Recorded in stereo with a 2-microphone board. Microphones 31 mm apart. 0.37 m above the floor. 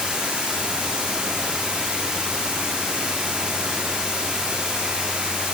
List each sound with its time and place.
0.0 s running water: 30° right (ahead or behind), 3.5 m